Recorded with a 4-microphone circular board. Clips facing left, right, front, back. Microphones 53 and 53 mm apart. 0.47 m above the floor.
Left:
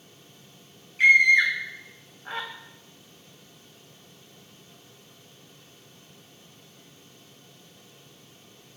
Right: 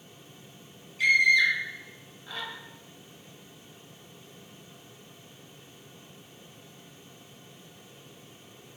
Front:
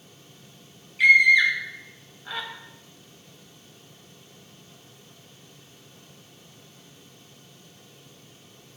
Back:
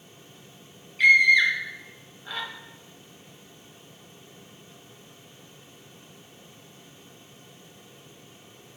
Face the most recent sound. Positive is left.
turn(degrees=80)